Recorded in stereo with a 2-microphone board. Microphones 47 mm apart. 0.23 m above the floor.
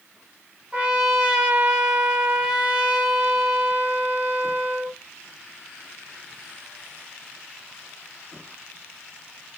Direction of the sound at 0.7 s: 25° right (ahead or behind).